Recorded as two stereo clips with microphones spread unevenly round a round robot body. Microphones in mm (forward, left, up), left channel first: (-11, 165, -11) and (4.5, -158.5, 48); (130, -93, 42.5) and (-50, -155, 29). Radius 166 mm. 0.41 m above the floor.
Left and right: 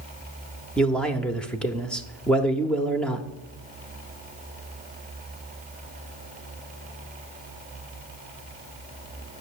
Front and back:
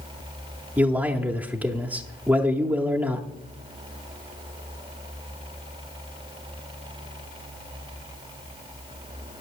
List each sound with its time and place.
0.8 s a man speaking: 145° left, 0.8 m